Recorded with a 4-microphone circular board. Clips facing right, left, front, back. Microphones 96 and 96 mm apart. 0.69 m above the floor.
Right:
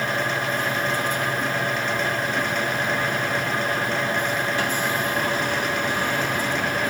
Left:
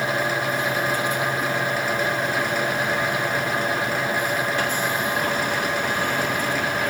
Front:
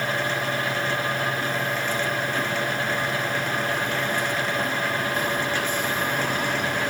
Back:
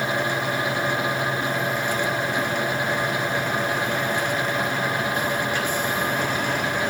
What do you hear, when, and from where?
Only background noise.